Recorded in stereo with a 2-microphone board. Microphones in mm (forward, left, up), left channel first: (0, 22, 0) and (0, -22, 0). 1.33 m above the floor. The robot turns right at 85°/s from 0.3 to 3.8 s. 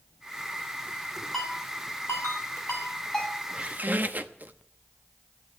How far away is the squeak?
About 1.0 m.